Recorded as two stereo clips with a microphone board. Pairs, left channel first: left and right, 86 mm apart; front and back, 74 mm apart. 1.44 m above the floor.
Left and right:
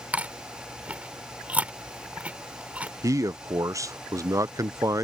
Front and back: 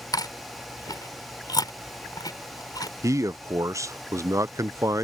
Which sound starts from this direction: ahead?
Chewing, at 0.1 s.